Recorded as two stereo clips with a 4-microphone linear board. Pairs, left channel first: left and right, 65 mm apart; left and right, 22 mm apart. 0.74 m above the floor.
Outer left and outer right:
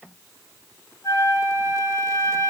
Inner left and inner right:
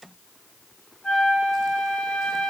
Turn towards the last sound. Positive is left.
turn(degrees=50)  # may be behind; listen again after turning